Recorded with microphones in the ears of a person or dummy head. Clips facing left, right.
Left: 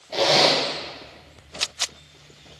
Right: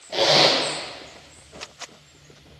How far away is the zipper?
About 0.7 m.